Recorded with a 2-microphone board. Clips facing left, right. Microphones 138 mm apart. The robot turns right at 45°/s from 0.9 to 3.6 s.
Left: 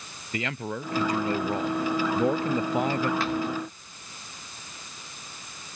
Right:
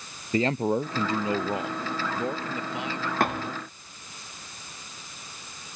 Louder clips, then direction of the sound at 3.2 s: Even; 55° right (ahead or behind).